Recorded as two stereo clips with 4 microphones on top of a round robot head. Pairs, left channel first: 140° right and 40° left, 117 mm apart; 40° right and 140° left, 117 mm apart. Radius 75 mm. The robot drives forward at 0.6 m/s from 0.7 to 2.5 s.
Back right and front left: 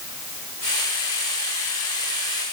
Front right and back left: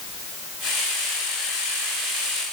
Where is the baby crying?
No baby crying in this recording.